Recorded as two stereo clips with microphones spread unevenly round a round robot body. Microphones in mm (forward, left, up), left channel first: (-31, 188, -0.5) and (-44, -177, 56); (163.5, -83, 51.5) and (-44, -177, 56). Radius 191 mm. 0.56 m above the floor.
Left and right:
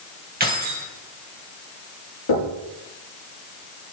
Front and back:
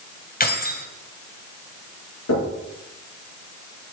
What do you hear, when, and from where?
0.4 s keys jangling: 25° right, 2.5 m
2.3 s knocking: 45° left, 6.5 m